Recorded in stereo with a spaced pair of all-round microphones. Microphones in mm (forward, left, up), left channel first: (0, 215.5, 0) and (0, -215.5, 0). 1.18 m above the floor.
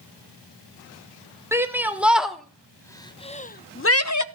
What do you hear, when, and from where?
1.5 s a shout: 5° right (ahead or behind), 2 m; by 4.2 s 45° left (ahead or behind), 0.7 m